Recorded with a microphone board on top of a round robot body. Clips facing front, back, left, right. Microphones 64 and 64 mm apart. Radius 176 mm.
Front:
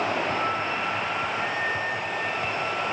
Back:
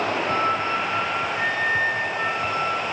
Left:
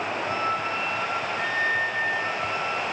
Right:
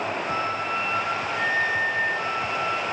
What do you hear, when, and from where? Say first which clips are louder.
0.3 s a flute: back 4 dB, left 2 dB; 170° right, 9 m